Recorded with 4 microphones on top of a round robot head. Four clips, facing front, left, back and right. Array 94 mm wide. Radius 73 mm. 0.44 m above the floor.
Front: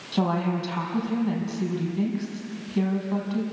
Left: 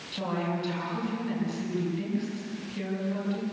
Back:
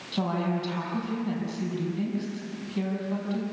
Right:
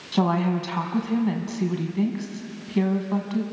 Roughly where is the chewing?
No chewing in this recording.